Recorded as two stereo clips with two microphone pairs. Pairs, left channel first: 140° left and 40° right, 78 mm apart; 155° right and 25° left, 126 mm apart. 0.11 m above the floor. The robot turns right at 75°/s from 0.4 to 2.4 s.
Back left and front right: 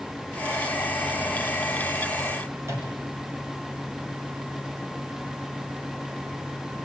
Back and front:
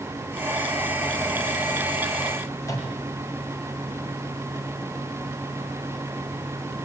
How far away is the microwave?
About 5.5 m.